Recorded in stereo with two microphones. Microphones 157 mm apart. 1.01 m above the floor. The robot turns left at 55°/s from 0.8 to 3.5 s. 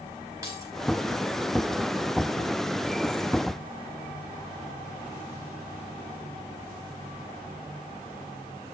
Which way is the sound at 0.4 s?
20° right (ahead or behind).